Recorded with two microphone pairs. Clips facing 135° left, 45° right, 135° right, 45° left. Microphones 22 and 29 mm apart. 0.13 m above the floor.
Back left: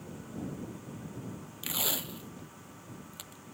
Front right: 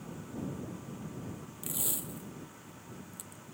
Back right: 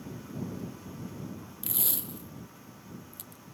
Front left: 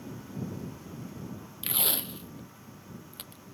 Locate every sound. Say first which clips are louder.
1.6 s tape being pulled: back left 5 dB, front left 7 dB; 95° left